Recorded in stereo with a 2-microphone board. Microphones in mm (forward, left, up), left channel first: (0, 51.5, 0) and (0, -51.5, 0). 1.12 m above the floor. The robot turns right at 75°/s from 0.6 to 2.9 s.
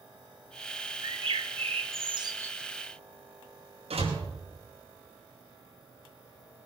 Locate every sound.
1.0 s a bird: 135° right, 1.4 m; by 2.5 s 25° right, 1.4 m
3.9 s a door slam: 75° right (ahead or behind), 5.5 m